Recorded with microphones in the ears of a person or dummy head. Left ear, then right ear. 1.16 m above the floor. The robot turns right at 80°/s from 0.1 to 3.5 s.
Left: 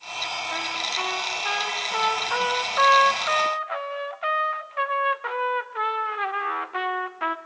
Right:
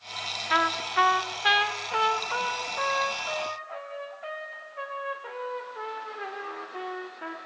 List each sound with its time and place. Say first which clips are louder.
0.5 s a trumpet: right 7 dB; 110° right, 0.8 m; by 7.4 s 130° left, 0.8 m